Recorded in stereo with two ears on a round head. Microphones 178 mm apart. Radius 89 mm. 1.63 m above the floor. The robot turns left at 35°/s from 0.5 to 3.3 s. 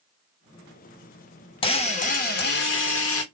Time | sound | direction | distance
1.6 | a drill | 155° left | 1.1 m